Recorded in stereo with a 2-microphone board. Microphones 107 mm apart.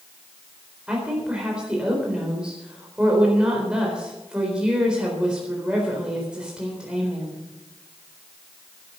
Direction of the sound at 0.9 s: 10° right (ahead or behind).